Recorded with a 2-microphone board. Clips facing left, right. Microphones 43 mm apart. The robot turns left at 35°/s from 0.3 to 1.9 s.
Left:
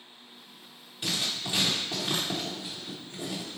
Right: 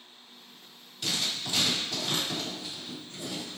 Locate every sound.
1.0 s writing: 20° left (ahead or behind), 1.7 m; by 3.6 s 35° left (ahead or behind), 1.7 m